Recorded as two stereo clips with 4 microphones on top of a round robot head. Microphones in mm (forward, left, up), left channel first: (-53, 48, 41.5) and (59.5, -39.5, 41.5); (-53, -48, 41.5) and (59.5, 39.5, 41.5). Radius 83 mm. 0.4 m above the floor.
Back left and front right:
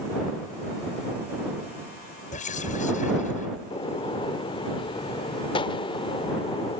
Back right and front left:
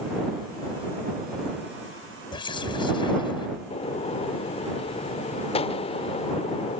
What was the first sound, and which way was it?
Whispering, 165° left.